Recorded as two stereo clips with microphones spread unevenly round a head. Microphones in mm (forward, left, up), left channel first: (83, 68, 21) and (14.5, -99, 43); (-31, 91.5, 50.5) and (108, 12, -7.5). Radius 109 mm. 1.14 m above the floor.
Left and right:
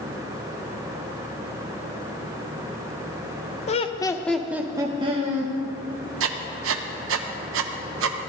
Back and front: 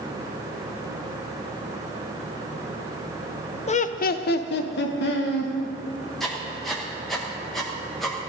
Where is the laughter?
90° left, 0.7 m; by 5.5 s 165° right, 1.1 m.